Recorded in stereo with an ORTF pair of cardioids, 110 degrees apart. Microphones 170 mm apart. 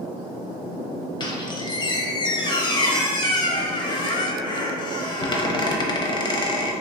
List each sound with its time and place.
1.2 s a squeak: 25° left, 0.7 m